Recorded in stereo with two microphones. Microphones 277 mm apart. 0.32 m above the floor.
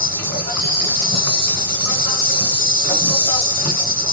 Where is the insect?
35° left (ahead or behind), 0.7 m.